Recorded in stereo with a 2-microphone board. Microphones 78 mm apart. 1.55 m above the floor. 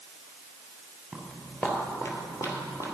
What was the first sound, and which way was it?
Footsteps, 10° left (ahead or behind).